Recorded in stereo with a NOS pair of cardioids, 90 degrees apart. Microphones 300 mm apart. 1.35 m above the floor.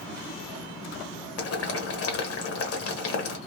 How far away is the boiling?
About 1.3 m.